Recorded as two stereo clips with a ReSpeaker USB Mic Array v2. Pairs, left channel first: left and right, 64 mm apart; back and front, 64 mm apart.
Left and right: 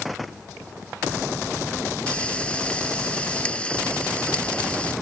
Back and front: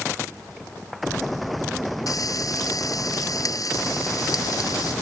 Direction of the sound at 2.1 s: 160° left.